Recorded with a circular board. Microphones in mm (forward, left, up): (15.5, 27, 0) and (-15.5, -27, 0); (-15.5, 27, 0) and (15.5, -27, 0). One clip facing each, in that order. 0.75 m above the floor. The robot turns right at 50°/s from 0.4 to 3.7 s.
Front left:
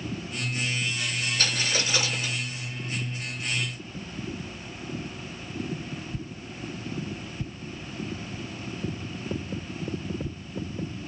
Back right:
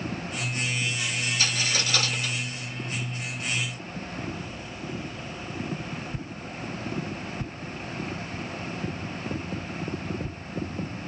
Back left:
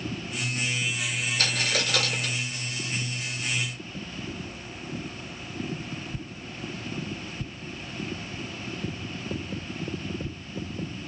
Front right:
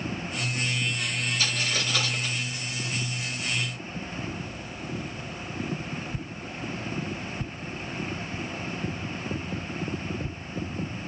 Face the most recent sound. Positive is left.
turn(degrees=-145)